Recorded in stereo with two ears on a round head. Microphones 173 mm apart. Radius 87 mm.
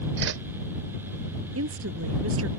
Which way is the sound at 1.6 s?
80° right.